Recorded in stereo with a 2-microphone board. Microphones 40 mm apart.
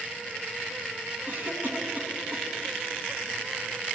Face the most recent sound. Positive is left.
turn(degrees=-50)  # may be behind; listen again after turning